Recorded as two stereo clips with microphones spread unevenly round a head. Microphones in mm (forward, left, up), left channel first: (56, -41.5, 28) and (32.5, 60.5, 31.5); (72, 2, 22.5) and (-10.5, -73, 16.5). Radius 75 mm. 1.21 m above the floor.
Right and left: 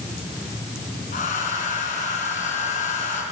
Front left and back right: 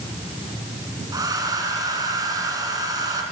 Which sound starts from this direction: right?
A hair dryer, at 1.1 s.